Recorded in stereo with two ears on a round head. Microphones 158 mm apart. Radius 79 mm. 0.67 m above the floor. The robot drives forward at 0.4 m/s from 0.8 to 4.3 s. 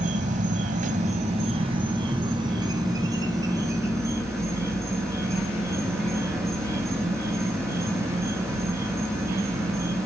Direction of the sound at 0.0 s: 45° right (ahead or behind).